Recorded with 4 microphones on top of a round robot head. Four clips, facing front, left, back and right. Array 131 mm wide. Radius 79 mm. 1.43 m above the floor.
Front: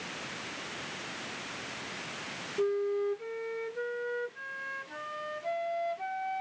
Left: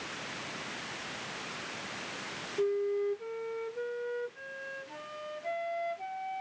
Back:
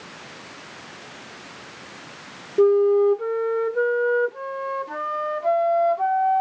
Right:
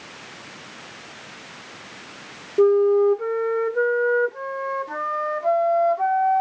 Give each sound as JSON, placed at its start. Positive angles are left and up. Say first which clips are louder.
{"t": 2.6, "sound": "a flute", "louder": "right 15 dB, back 14 dB", "azimuth_deg": -130}